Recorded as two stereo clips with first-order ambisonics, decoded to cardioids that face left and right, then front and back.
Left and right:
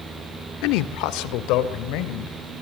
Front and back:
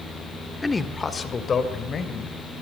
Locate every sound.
0.6 s a man speaking: 80° left, 1.5 m; by 2.5 s 60° left, 3.5 m